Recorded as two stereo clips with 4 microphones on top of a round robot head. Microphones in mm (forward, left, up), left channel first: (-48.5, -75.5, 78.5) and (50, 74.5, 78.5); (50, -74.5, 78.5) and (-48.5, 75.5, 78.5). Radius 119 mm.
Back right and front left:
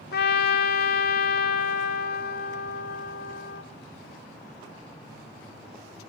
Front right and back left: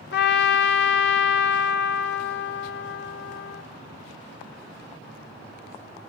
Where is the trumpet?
90° right, 1.5 m.